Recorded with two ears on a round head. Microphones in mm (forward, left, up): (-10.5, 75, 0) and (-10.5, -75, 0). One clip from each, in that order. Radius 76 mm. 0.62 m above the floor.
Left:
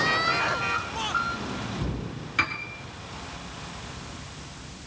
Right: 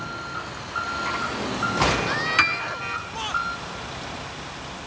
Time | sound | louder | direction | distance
2.4 | a piano | right 5 dB | 40° right (ahead or behind) | 1.0 m